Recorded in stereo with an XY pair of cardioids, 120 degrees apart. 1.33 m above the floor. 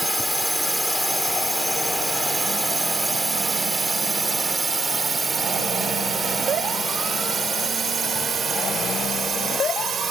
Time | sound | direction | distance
0.0 | a drone | 5° left | ?